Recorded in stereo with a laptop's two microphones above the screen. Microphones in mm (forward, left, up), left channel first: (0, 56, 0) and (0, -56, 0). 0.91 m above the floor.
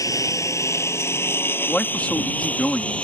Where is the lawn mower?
30° left (ahead or behind); by 3.0 s 10° left (ahead or behind).